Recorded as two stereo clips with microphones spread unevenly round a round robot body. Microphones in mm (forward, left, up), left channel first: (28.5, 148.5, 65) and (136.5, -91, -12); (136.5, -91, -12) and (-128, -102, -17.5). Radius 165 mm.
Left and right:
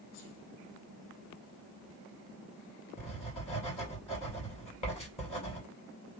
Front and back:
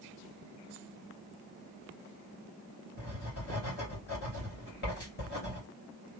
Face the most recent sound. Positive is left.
turn(degrees=40)